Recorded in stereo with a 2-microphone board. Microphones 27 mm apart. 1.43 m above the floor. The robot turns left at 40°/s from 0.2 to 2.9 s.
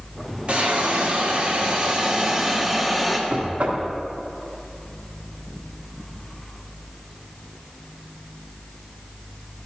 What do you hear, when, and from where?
0.5 s a hiss: 75° right, 1.1 m; by 3.2 s 170° right, 1.1 m
3.3 s knocking: 70° right (ahead or behind), 1.3 m